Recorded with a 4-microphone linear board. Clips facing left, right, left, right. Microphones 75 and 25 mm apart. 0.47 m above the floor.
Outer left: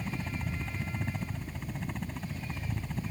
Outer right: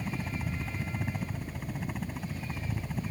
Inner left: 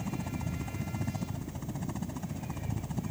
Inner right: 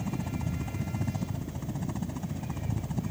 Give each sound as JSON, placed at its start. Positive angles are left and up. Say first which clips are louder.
{"t": 0.0, "sound": "a helicopter", "louder": "outer right 1 dB, inner right 2 dB", "side_deg": -5}